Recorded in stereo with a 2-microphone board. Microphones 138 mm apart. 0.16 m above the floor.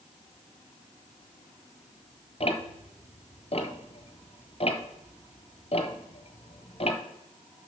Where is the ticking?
55° left (ahead or behind), 1.2 m.